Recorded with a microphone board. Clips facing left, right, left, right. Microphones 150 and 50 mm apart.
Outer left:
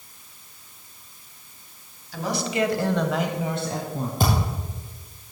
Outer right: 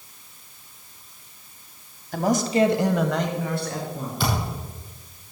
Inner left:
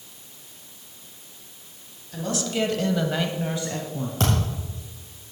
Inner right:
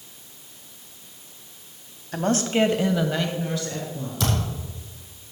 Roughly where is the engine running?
No engine running in this recording.